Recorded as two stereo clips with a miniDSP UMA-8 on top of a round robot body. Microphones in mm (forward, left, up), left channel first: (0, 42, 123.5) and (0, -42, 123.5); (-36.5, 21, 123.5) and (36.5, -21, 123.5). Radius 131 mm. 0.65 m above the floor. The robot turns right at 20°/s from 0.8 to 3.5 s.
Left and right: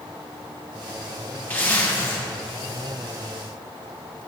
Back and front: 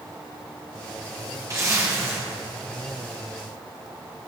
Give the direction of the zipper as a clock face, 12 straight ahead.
11 o'clock.